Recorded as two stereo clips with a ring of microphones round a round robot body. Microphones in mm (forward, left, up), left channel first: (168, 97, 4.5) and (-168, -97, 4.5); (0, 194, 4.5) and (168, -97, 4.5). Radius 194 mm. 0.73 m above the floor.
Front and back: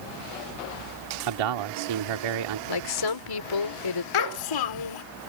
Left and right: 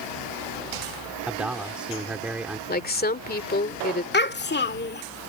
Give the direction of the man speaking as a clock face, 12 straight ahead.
5 o'clock.